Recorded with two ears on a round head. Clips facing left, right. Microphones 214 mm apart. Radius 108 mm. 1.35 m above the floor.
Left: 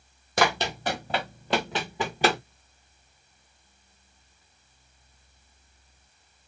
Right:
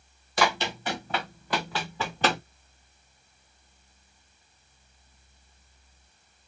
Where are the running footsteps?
40° left (ahead or behind), 1.8 m; by 2.4 s 5° left (ahead or behind), 1.4 m.